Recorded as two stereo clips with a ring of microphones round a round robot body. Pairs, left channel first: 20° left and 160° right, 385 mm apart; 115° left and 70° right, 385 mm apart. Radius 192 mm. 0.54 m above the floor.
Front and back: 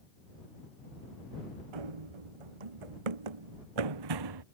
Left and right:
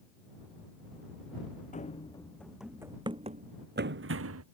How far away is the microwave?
No microwave in this recording.